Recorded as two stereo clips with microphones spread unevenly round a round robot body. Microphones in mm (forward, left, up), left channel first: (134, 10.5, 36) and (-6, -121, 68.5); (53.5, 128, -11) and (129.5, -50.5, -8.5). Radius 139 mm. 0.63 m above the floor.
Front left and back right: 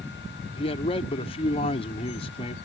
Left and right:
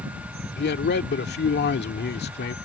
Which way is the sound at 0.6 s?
95° left.